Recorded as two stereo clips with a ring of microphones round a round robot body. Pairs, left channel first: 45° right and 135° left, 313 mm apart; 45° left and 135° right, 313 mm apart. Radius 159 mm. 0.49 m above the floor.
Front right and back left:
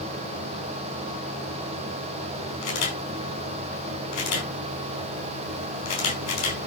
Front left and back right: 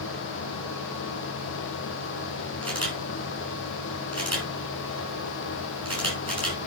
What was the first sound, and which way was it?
A camera shutter, 40° right.